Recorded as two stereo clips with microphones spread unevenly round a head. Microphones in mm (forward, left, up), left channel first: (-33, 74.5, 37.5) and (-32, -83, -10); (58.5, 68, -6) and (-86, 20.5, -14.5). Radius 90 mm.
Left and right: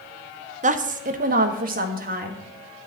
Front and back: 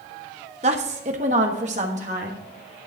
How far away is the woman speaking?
About 0.8 m.